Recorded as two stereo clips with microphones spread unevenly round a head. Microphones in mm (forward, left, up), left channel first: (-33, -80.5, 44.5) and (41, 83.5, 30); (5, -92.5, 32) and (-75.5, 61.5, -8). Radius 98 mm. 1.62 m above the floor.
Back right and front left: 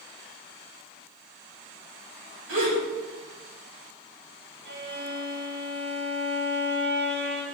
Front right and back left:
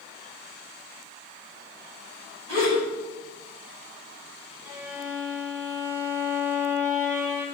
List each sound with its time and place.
2.5 s a gasp: 50° left, 9 m
4.7 s a violin: 35° left, 3.5 m